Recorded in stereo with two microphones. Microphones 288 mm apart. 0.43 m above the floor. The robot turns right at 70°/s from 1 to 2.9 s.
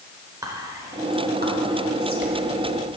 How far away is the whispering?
About 1.1 m.